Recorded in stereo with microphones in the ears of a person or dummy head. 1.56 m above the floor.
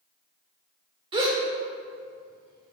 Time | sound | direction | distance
1.1 | a gasp | 30° right (ahead or behind) | 1.7 m